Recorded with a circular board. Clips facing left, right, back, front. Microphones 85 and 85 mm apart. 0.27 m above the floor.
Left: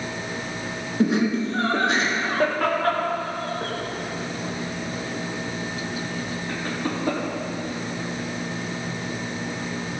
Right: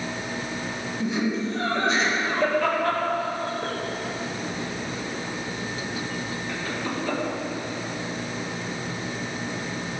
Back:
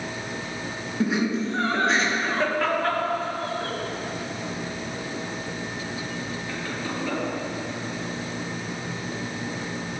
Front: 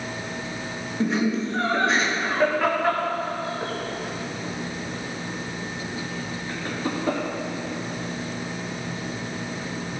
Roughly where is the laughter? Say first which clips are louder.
Left 5 dB, front 1 dB; left.